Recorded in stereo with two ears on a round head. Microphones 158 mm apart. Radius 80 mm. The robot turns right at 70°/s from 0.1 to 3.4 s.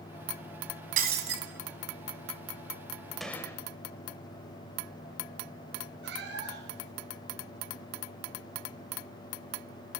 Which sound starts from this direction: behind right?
Breaking glass, at 1.0 s.